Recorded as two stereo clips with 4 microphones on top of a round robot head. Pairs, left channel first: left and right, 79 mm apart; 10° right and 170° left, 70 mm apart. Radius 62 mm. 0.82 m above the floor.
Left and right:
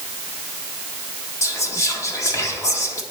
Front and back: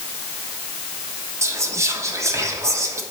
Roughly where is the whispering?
Behind left.